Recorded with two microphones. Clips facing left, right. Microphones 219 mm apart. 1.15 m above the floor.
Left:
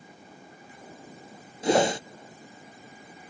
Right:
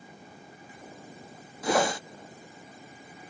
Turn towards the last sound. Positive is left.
turn(degrees=25)  # may be behind; listen again after turning